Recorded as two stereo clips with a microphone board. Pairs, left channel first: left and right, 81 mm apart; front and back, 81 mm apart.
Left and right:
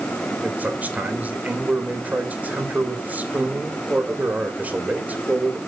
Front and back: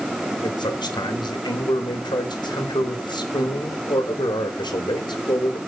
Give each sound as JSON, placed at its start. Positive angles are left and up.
{"t": 0.4, "sound": "a man speaking", "azimuth_deg": -20, "distance_m": 2.5}